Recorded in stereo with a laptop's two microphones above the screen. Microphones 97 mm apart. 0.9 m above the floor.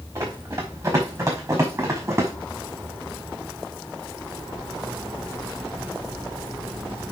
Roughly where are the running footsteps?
Right.